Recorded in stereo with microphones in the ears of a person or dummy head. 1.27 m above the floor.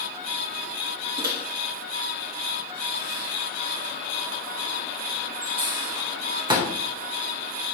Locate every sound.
1.2 s a microwave: 25° right (ahead or behind), 0.7 m